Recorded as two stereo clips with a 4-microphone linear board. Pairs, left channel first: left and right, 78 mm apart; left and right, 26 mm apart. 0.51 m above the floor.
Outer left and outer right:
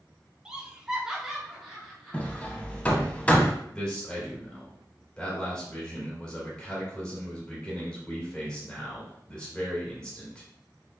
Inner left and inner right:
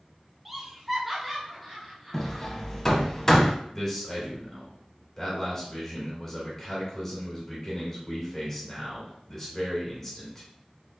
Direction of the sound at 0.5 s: 10° right (ahead or behind).